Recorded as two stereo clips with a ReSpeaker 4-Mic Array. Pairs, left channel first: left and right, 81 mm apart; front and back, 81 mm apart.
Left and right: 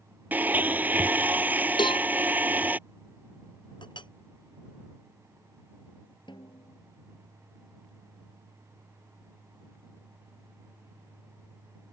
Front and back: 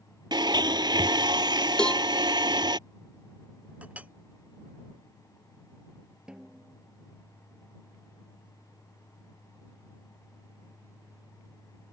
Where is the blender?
155° right.